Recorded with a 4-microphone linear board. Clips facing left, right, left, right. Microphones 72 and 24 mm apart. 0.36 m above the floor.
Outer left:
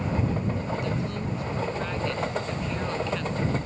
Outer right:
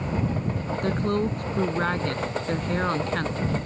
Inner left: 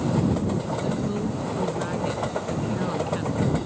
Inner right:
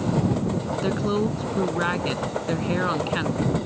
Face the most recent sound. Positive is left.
turn(degrees=-50)  # may be behind; listen again after turning